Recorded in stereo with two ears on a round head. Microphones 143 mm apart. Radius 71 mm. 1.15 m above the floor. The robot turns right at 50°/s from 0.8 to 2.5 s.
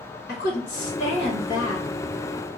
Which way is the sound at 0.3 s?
115° left.